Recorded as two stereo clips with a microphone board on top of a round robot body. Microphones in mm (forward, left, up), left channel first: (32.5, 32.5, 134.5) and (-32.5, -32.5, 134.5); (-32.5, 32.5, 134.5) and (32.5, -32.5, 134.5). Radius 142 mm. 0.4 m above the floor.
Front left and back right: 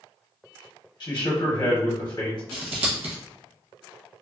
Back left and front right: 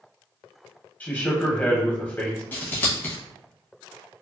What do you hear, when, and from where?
1.0 s a man speaking: 70° left, 1.0 m
2.5 s scissors: 155° right, 0.8 m